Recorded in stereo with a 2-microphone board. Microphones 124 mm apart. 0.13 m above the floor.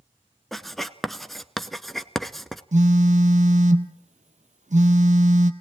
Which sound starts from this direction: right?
A phone buzzing, at 2.7 s.